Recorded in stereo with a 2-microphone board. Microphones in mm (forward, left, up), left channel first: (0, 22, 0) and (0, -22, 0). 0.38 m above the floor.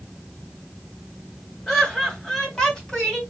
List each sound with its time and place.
1.7 s laughter: 10° left (ahead or behind), 2.5 m; by 3.2 s 15° left (ahead or behind), 3 m